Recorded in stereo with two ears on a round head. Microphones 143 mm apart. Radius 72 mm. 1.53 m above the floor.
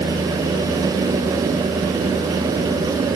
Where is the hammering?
I don't hear hammering.